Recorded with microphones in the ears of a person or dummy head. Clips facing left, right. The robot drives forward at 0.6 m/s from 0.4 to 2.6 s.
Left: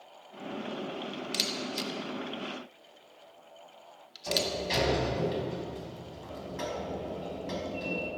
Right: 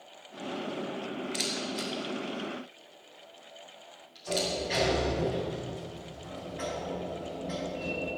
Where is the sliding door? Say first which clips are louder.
Right 1 dB; 65° left (ahead or behind), 5 m.